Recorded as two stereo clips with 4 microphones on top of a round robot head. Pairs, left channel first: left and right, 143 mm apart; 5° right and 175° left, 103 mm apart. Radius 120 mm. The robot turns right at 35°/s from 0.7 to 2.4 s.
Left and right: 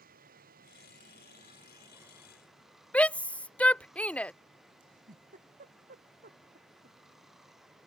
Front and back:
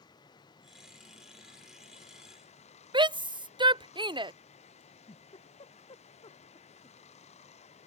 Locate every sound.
0.0 s running water: 60° right; by 7.9 s straight ahead
2.9 s a shout: 170° left
4.8 s a giggle: 55° right